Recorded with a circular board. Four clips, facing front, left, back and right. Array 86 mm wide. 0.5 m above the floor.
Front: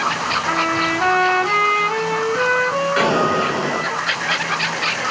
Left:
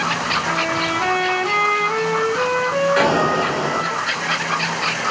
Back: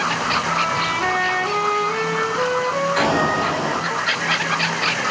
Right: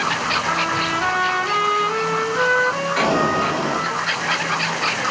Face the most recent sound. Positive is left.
turn(degrees=25)